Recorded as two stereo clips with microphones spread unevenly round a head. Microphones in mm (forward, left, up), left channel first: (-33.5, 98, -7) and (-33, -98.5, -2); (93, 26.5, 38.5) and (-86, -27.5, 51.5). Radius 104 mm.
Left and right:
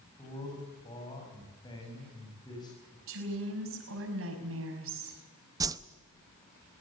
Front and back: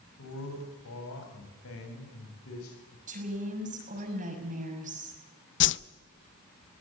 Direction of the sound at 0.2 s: 15° left.